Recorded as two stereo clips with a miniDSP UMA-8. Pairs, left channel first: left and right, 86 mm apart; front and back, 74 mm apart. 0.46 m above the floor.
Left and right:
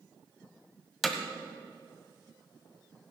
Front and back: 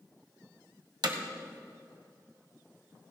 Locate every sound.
1.0 s hammering: straight behind, 1.4 m